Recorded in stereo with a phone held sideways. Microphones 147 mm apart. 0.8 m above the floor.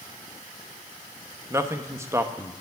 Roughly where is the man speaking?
Centre.